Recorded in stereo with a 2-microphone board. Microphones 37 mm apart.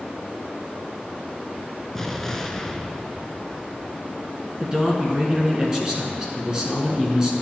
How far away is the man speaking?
About 1.5 m.